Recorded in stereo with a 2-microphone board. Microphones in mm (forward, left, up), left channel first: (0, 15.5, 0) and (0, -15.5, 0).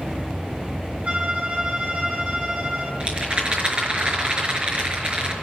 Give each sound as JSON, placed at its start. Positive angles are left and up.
{"t": 1.0, "sound": "a violin", "side_deg": -55, "distance_m": 4.5}
{"t": 3.0, "sound": "a rattle", "side_deg": -40, "distance_m": 5.0}